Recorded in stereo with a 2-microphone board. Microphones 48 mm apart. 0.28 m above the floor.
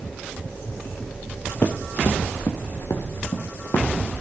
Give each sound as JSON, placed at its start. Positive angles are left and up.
{"t": 1.6, "sound": "running footsteps", "side_deg": 45, "distance_m": 1.9}